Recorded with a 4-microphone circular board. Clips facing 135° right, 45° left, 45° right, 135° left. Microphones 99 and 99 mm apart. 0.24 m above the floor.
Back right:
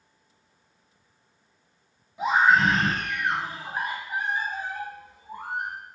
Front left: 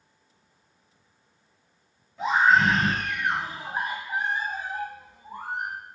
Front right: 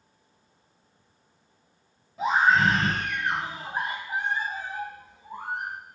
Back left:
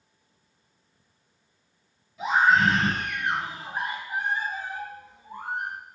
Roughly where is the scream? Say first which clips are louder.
Even, even; ahead right.